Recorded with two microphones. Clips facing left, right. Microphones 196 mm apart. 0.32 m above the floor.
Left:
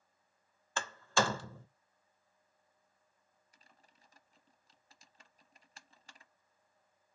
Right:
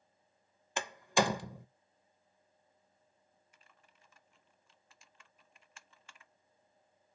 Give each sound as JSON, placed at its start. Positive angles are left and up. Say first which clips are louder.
{"t": 0.8, "sound": "a door slam", "louder": "right 2 dB", "side_deg": -15, "distance_m": 0.5}
{"t": 3.5, "sound": "typing on a keyboard", "louder": "left 2 dB", "side_deg": 35, "distance_m": 0.6}